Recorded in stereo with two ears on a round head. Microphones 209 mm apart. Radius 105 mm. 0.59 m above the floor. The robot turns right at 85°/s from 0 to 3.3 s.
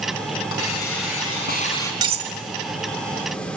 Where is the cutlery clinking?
20° right (ahead or behind), 1.2 m; by 2.3 s 40° right (ahead or behind), 1.2 m.